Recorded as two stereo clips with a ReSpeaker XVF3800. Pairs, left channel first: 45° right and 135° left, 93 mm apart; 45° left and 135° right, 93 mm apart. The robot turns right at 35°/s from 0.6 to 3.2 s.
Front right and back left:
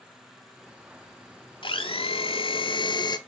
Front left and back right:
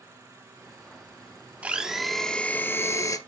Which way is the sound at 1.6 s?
60° right.